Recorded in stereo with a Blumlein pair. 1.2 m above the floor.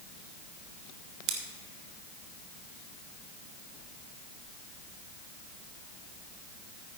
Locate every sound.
1.3 s scissors: 40° right, 1.7 m